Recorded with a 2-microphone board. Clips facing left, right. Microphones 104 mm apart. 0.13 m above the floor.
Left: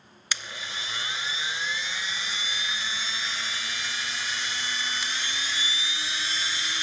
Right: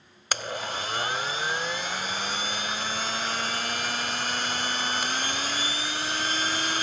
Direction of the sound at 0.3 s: 50° right (ahead or behind).